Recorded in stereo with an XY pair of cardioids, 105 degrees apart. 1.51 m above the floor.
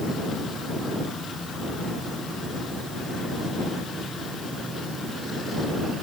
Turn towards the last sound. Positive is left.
No sound to turn to.